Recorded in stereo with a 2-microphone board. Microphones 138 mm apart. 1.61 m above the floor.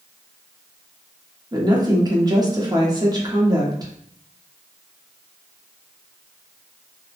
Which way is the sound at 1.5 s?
30° right (ahead or behind).